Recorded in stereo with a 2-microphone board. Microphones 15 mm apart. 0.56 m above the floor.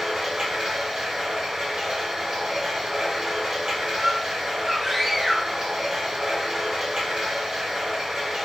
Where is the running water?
55° right (ahead or behind), 1.6 m.